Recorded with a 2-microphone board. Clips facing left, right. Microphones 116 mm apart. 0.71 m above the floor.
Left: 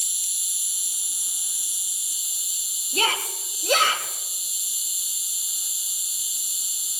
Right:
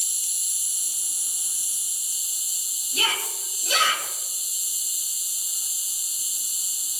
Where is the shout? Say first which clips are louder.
Left 4 dB; 55° left (ahead or behind), 2.5 m.